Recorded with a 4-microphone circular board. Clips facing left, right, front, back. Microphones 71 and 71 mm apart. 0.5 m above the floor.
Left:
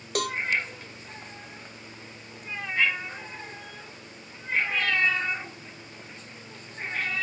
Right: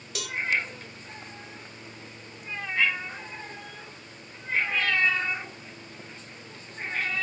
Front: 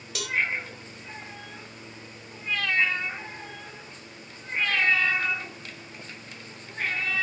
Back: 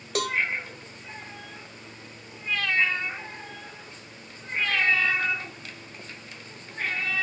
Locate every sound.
0.1 s a cowbell: 130° left, 0.6 m